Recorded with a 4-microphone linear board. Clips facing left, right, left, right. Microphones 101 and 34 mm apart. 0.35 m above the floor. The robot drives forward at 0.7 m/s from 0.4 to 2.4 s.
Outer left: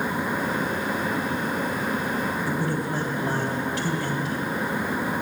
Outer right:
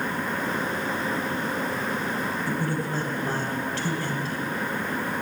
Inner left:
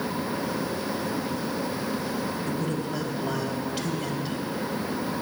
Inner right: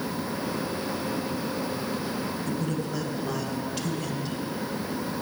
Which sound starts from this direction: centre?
A man speaking, at 2.5 s.